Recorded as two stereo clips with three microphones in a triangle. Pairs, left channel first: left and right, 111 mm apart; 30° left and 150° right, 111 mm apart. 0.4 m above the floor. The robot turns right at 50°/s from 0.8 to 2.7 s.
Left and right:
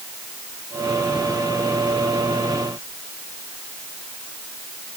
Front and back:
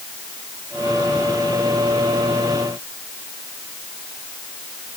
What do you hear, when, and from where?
Only background noise.